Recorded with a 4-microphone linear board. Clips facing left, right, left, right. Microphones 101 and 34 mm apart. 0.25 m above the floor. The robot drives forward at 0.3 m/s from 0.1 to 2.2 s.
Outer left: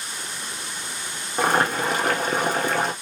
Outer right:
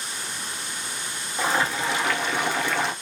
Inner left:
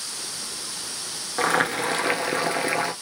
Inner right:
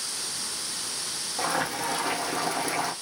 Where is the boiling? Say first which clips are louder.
Outer left 4 dB, inner left 6 dB; 65° left (ahead or behind), 0.6 m; by 2.9 s 45° left (ahead or behind), 0.8 m.